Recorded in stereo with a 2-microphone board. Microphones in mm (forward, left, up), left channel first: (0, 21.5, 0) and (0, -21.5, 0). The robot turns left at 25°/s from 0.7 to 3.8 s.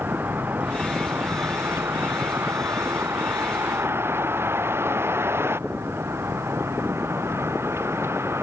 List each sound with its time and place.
0.0 s a vehicle: 50° right (ahead or behind); by 8.4 s 80° right